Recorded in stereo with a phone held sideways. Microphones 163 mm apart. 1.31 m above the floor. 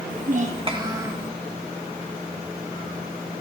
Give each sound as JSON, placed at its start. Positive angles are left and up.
{"t": 0.1, "sound": "a child speaking", "side_deg": -65, "distance_m": 1.4}